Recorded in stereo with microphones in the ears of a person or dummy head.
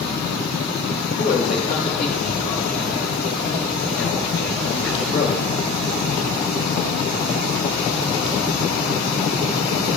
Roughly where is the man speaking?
Left.